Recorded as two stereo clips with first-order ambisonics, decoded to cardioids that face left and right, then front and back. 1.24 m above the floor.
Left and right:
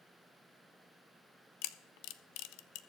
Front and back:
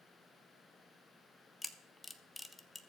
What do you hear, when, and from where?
1.6 s a camera shutter: 85° left, 0.6 m